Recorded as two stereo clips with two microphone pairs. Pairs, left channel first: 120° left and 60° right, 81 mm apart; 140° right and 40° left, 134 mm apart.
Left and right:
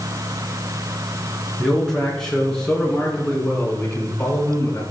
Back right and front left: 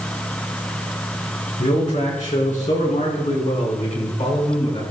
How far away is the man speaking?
About 4.5 m.